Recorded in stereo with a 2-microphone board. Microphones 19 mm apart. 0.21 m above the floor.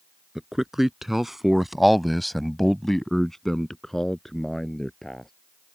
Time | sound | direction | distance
0.3 | a man speaking | 15° right (ahead or behind) | ?